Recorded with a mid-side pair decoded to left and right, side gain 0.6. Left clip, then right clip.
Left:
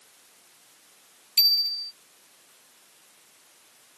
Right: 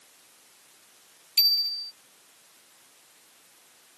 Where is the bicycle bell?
10° left.